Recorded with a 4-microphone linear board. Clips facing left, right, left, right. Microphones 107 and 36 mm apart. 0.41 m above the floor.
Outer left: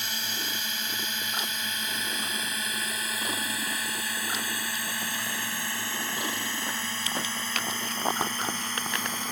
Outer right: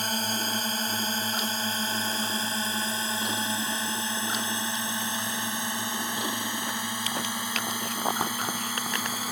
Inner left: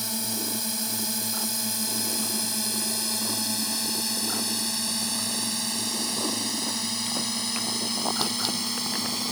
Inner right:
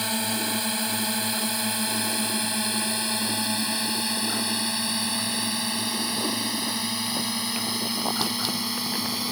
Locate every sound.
0.0 s a drone: 45° right (ahead or behind); by 9.3 s 10° right (ahead or behind)